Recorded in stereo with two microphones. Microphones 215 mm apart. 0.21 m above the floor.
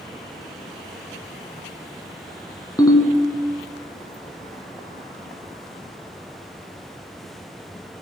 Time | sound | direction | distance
2.8 | a ringtone | 15° left (ahead or behind) | 0.9 m